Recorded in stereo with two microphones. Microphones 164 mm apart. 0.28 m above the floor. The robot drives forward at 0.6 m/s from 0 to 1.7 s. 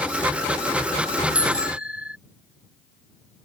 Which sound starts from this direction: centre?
A bicycle bell, at 1.4 s.